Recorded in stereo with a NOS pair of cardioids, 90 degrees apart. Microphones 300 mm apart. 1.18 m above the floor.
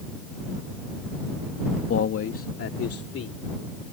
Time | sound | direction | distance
1.9 | a man speaking | 45° left | ?